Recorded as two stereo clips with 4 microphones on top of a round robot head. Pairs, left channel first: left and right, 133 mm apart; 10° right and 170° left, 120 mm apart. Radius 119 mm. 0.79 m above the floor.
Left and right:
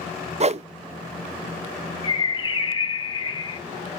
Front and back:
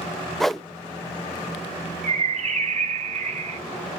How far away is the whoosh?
About 0.6 m.